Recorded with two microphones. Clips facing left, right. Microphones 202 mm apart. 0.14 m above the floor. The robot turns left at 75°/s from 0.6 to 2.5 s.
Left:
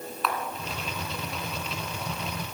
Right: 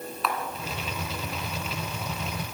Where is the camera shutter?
Centre (ahead or behind), 1.0 m.